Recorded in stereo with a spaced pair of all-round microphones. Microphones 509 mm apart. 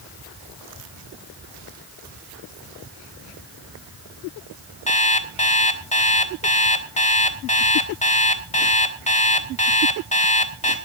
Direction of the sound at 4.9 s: 15° left (ahead or behind).